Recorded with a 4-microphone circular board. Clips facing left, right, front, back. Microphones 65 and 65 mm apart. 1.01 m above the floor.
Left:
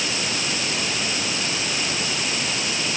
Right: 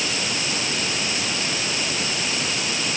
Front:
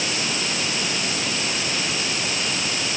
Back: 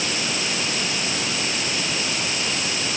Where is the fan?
I don't hear a fan.